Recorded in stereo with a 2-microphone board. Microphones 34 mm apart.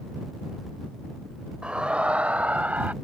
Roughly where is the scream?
Right.